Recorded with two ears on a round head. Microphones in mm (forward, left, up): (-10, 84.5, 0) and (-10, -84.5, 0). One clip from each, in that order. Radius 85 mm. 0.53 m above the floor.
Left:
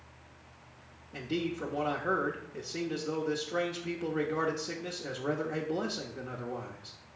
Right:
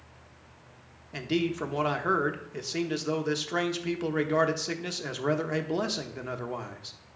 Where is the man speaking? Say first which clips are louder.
Right 5 dB; 40° right (ahead or behind), 0.8 m.